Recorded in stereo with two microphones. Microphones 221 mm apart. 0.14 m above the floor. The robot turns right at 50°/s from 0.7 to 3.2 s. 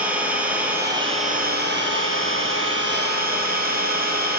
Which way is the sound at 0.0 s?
170° right.